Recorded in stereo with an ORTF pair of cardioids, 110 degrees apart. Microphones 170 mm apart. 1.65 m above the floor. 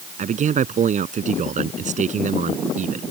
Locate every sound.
0.2 s a man speaking: 45° right